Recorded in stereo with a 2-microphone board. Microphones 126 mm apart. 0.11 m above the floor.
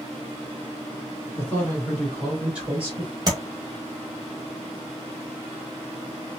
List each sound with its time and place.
1.4 s a man speaking: 20° left (ahead or behind), 1.6 m; by 3.1 s 25° right (ahead or behind), 1.8 m
3.3 s tapping: 35° right (ahead or behind), 1.3 m